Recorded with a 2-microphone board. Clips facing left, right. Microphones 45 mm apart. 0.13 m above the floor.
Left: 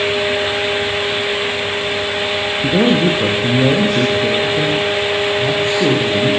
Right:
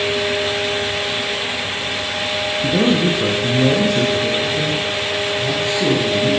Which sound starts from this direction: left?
A man speaking, at 2.6 s.